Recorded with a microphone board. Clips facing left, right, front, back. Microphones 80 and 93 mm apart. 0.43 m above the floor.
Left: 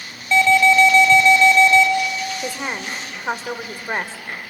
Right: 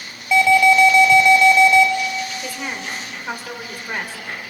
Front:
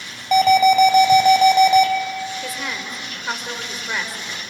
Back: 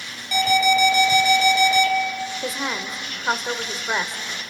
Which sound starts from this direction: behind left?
A woman speaking, at 2.4 s.